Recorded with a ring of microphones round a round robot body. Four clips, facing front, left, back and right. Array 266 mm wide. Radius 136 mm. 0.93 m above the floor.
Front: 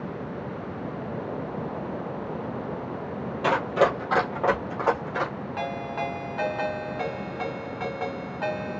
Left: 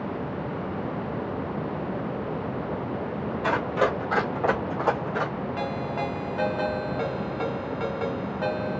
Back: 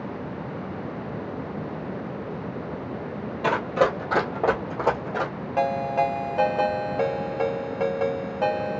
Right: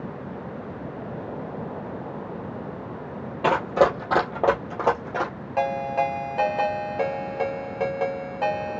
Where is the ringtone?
140° right, 2.5 m.